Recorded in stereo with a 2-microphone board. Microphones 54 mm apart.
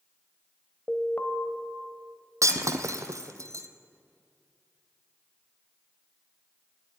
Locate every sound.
0.9 s an alarm: 30° left (ahead or behind), 1.0 m
2.4 s breaking glass: 70° right (ahead or behind), 0.7 m